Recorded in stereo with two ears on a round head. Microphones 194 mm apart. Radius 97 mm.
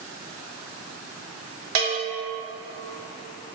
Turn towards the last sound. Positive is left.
turn(degrees=-65)  # may be behind; listen again after turning